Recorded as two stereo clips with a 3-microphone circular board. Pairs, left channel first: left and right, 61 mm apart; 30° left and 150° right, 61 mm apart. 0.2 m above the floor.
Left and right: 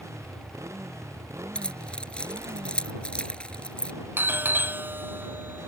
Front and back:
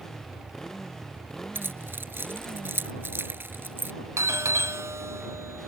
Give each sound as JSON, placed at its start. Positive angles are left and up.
{"t": 0.0, "sound": "a motorcycle", "azimuth_deg": -50}
{"t": 1.6, "sound": "keys jangling", "azimuth_deg": 160}
{"t": 4.2, "sound": "a doorbell", "azimuth_deg": -135}